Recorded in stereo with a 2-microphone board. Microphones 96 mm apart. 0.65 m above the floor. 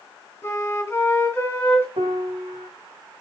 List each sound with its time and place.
0.4 s a flute: 20° left (ahead or behind), 2.5 m
2.0 s a piano: 70° right (ahead or behind), 0.8 m